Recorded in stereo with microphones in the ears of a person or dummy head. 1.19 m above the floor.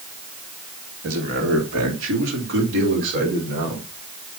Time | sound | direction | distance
1.0 | a man speaking | 75° right (ahead or behind) | 2.5 m